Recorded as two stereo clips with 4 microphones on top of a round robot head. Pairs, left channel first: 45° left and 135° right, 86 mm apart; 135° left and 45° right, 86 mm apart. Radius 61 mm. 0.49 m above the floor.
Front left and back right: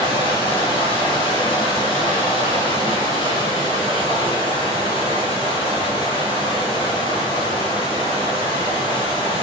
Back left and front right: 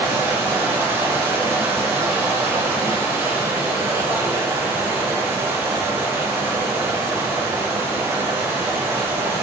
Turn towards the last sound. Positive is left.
turn(degrees=20)